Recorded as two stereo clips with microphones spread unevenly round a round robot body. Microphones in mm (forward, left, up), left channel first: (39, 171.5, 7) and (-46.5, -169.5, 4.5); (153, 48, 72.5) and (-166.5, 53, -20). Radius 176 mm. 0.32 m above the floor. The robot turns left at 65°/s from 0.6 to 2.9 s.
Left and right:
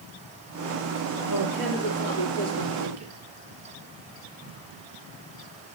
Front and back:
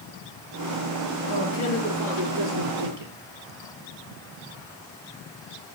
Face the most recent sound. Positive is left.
turn(degrees=-155)